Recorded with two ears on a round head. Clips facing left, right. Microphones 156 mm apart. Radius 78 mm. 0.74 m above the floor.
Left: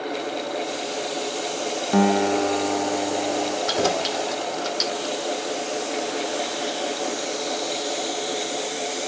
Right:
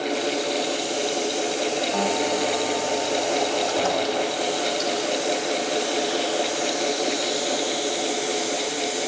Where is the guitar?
70° left (ahead or behind), 0.7 m.